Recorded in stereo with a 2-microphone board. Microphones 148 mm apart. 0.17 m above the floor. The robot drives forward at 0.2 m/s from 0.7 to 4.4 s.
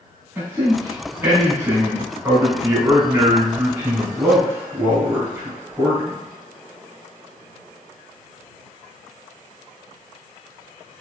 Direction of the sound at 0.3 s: 15° right (ahead or behind).